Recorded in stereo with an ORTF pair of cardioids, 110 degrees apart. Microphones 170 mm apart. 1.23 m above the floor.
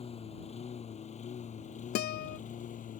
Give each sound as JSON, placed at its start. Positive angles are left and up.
{"t": 0.0, "sound": "a lawn mower", "azimuth_deg": 35}
{"t": 1.9, "sound": "a guitar", "azimuth_deg": 70}